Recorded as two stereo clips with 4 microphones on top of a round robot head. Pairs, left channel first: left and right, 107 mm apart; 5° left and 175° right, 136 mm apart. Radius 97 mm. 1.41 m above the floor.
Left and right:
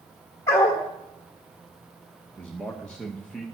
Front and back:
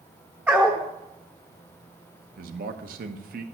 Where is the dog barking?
120° left, 1.1 m.